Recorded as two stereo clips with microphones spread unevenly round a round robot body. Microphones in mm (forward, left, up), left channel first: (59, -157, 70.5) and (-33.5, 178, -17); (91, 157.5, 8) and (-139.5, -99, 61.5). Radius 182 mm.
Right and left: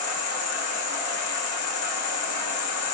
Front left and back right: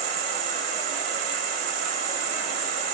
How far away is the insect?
About 1.3 m.